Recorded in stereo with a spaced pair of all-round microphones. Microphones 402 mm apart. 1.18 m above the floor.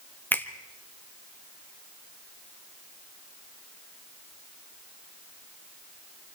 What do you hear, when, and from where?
0.3 s a finger snap: 5° left (ahead or behind), 1.3 m